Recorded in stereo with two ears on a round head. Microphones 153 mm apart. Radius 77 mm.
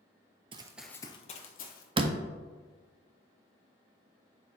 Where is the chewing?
No chewing in this recording.